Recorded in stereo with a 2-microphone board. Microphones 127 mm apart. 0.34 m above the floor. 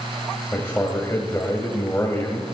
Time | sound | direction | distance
0.5 | a man speaking | 20° left (ahead or behind) | 1.9 m